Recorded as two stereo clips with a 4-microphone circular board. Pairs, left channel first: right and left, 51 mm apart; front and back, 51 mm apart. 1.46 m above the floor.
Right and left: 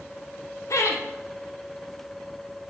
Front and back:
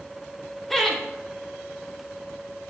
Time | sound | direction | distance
0.7 | laughter | 85° right | 0.8 m